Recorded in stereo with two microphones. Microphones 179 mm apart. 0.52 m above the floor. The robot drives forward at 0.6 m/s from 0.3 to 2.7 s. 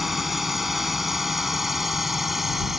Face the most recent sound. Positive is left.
turn(degrees=0)  # may be behind; listen again after turning